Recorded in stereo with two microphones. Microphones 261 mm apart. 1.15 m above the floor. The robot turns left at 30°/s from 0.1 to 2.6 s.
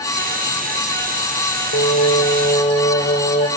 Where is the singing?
65° left (ahead or behind), 4 m; by 3.5 s 35° left (ahead or behind), 4 m.